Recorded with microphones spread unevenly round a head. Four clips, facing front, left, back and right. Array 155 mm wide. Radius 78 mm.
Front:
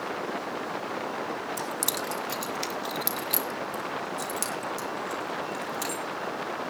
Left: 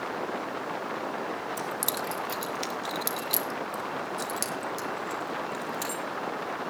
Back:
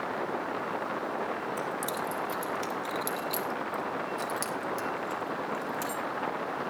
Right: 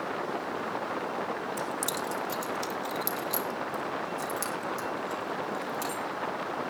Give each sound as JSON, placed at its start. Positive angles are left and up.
{"t": 1.6, "sound": "keys jangling", "azimuth_deg": 10, "distance_m": 1.5}